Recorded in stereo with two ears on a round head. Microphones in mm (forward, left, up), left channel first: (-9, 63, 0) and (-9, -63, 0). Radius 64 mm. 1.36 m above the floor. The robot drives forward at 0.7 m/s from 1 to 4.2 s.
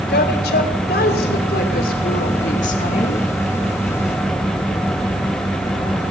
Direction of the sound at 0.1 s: 80° left.